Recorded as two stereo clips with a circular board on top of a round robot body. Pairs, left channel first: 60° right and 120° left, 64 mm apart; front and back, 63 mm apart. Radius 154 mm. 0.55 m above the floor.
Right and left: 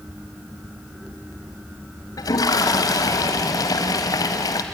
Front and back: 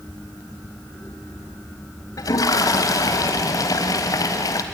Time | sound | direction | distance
2.2 | a toilet flushing | 30° right | 0.8 m